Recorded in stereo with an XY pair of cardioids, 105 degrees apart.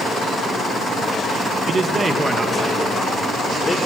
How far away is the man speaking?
About 1.2 m.